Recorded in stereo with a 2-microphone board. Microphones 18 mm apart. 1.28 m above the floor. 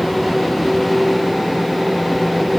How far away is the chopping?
I don't hear chopping.